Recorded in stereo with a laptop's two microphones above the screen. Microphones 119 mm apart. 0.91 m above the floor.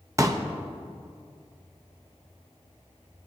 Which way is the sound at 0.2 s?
30° right (ahead or behind).